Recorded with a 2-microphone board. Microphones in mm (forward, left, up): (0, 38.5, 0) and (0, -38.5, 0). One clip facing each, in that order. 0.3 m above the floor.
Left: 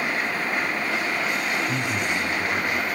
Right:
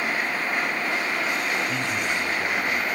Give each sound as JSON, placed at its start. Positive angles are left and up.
{"t": 1.7, "sound": "a man speaking", "side_deg": 20, "distance_m": 1.9}